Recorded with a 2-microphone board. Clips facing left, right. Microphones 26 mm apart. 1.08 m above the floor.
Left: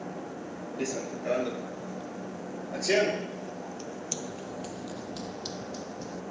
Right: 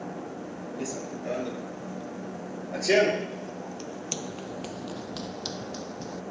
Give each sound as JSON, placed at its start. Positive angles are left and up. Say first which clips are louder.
{"t": 0.8, "sound": "running footsteps", "louder": "left 3 dB", "side_deg": 30}